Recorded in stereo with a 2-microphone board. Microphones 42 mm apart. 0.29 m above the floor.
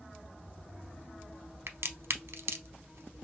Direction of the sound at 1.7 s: 75° right (ahead or behind).